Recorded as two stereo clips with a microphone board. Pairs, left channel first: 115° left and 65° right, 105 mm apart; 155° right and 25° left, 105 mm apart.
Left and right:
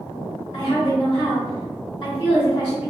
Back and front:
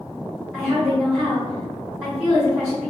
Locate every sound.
0.5 s a woman speaking: 110° left, 1.8 m